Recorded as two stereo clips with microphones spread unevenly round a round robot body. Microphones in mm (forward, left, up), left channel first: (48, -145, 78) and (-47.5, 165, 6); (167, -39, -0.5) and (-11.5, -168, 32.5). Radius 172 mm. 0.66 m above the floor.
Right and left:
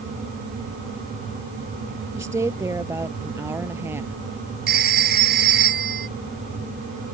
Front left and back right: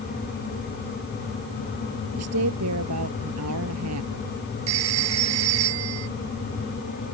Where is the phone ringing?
170° left.